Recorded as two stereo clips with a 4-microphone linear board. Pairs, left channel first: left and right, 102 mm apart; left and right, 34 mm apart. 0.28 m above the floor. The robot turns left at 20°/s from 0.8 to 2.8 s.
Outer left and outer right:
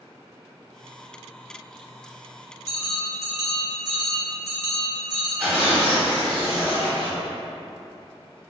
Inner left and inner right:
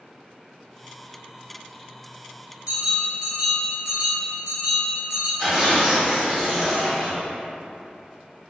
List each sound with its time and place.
2.7 s a bell: 30° right (ahead or behind), 1.3 m
5.4 s tearing paper: 10° right (ahead or behind), 1.1 m